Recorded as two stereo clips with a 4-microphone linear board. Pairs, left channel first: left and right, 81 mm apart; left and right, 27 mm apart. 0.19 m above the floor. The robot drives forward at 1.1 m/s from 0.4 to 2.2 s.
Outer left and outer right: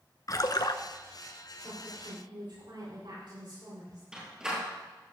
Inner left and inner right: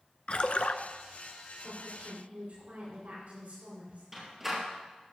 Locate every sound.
0.3 s a splash: 50° left (ahead or behind), 0.7 m; by 0.8 s 65° left (ahead or behind), 0.6 m
1.6 s a woman speaking: 65° right (ahead or behind), 5.5 m; by 4.0 s 70° right (ahead or behind), 5.5 m
4.1 s a door slam: 10° right (ahead or behind), 3 m